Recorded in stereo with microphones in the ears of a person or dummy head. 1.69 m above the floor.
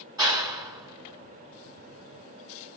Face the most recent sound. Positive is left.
turn(degrees=-25)  # may be behind; listen again after turning